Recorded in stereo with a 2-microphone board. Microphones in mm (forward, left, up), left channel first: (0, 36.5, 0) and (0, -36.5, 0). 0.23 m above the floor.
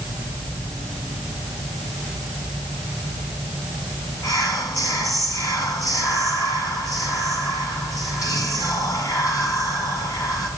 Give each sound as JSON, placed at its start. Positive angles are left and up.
{"t": 4.2, "sound": "whispering", "side_deg": 55, "distance_m": 2.5}